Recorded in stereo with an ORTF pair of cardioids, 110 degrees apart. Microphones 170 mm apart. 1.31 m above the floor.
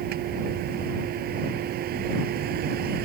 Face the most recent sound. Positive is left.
turn(degrees=-70)